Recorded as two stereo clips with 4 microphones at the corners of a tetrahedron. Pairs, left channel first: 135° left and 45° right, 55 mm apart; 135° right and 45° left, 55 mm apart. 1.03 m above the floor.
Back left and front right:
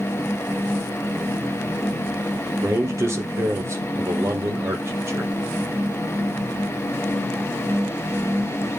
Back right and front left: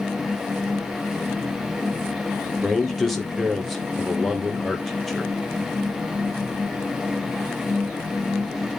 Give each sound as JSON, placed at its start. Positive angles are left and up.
{"t": 2.6, "sound": "a man speaking", "azimuth_deg": -45, "distance_m": 1.1}